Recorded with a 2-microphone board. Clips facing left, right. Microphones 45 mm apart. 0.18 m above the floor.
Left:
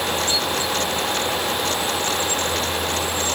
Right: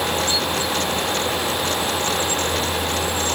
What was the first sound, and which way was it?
Only background noise.